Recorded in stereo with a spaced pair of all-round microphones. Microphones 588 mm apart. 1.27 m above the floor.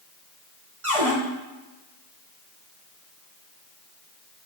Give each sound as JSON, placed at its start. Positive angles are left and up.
{"t": 0.8, "sound": "a cupboard door", "side_deg": -55, "distance_m": 2.5}